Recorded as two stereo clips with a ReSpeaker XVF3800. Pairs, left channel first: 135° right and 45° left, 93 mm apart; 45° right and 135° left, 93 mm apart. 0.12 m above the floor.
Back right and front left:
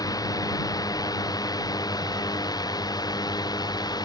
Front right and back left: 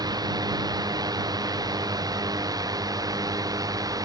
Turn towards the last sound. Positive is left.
turn(degrees=-175)